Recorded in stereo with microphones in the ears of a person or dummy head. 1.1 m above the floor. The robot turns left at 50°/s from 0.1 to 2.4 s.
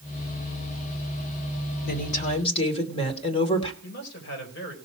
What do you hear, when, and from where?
1.8 s a woman speaking: 65° left (ahead or behind), 2.5 m; by 3.7 s 35° left (ahead or behind), 2.5 m
3.8 s a man speaking: 65° left (ahead or behind), 5 m